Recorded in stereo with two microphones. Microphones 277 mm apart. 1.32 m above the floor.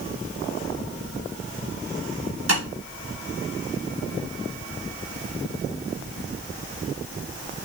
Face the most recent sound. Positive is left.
turn(degrees=-50)  # may be behind; listen again after turning